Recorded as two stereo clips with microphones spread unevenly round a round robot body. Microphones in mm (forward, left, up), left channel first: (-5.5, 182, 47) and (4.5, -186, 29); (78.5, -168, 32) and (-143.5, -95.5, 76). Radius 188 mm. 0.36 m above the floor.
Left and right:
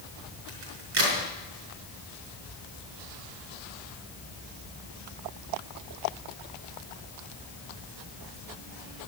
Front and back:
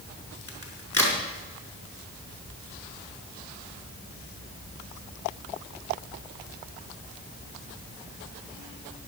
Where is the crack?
95° right, 4.5 m.